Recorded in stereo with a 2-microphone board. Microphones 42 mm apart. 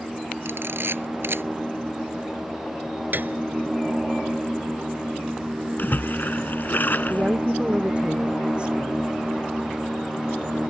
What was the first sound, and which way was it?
A camera shutter, 65° right (ahead or behind).